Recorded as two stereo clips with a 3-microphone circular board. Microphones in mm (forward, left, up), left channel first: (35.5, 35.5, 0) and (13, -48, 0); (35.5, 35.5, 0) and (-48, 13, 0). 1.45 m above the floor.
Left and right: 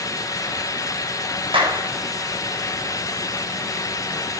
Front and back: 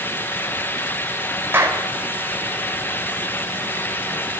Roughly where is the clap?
Right.